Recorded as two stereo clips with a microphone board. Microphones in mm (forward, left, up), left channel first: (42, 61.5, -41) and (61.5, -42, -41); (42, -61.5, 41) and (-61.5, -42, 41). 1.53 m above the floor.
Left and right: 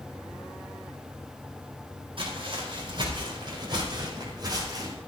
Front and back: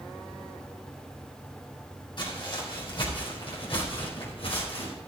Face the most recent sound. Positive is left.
turn(degrees=-30)